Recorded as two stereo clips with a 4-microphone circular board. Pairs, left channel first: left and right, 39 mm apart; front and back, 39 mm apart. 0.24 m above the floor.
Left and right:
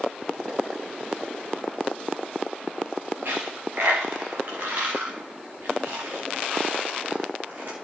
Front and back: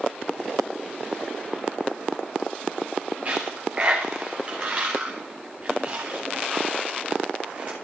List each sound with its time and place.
3.2 s a dropped coin: 125° right, 3 m